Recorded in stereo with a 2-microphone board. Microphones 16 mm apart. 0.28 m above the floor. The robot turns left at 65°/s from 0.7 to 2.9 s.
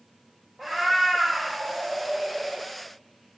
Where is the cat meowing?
30° right, 1.5 m; by 2.7 s 155° right, 1.5 m.